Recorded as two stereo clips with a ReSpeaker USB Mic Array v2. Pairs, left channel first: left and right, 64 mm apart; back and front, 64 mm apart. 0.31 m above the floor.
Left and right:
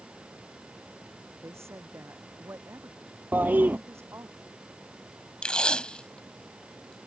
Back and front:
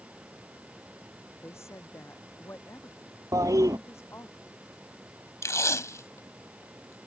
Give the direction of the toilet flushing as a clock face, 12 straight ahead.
1 o'clock.